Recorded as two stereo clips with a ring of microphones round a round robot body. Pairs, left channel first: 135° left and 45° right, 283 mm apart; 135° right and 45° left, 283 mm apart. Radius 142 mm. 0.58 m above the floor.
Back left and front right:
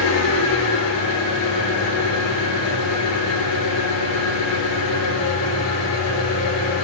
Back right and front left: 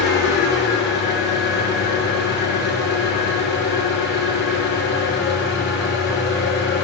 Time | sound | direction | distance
0.0 | an engine running | 170° left | 9.5 m